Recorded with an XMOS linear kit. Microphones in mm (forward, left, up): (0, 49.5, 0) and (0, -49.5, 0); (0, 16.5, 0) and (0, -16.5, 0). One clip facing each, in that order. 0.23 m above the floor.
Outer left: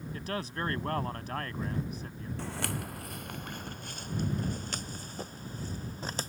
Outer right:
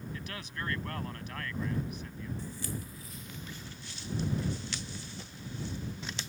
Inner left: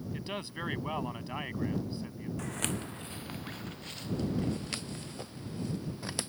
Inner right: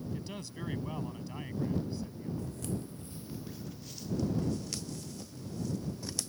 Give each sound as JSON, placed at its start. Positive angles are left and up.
{"t": 0.1, "sound": "a man speaking", "side_deg": 40}
{"t": 2.4, "sound": "footsteps", "side_deg": 80}